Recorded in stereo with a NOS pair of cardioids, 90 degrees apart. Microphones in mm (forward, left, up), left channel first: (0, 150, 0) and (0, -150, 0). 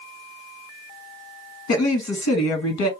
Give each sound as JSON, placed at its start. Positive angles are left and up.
{"t": 1.7, "sound": "a woman speaking", "azimuth_deg": 65, "distance_m": 1.8}